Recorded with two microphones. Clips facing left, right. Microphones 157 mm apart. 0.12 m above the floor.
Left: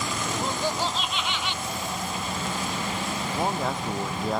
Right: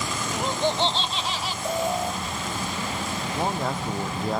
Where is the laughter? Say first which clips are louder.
Right 5 dB; 15° right (ahead or behind); by 1.5 s 40° right (ahead or behind).